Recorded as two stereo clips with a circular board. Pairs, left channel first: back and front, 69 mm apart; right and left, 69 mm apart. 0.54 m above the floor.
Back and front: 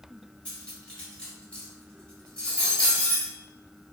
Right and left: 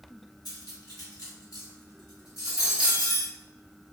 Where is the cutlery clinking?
105° right, 1.6 m.